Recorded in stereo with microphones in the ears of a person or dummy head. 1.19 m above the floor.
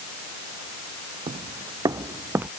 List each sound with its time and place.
1.3 s footsteps: 30° right (ahead or behind); by 2.5 s 15° right (ahead or behind)